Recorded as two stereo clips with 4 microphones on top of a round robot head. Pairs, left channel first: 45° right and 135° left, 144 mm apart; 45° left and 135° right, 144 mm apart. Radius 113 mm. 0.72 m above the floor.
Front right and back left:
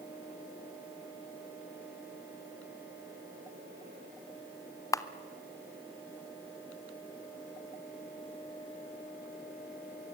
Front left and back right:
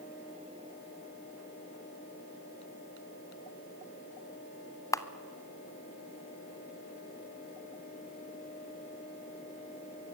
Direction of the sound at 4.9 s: Straight ahead.